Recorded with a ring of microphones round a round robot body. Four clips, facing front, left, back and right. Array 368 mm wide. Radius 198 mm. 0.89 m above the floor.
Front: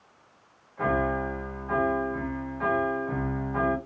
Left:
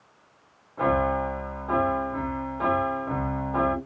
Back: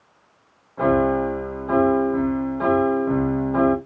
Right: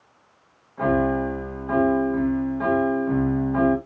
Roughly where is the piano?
Behind left.